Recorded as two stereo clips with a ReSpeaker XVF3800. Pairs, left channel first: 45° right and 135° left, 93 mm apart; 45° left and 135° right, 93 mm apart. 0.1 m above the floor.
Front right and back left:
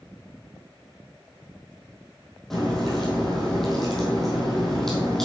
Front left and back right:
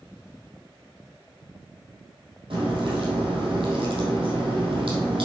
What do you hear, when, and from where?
2.5 s a crack: 130° right, 3.5 m